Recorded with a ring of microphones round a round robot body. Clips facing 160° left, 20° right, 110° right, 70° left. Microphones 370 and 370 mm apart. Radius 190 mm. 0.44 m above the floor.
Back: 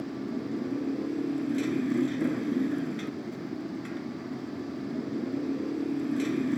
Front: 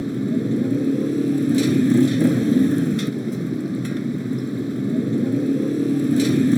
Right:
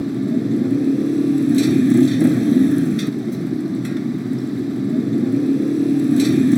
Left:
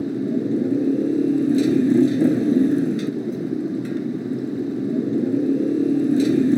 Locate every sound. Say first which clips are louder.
0.0 s a motorcycle: front 11 dB, right 3 dB; 45° right